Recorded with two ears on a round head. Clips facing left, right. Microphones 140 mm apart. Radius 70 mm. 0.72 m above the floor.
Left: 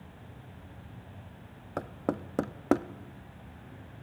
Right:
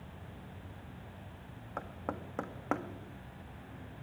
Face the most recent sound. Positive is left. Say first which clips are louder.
# left 8 dB
turn(degrees=40)  # may be behind; listen again after turning